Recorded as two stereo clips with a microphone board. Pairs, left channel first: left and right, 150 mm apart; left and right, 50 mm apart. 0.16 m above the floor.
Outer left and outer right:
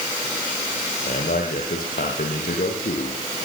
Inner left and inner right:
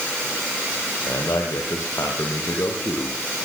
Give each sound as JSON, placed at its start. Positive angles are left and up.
{"t": 1.1, "sound": "a man speaking", "side_deg": 75, "distance_m": 5.5}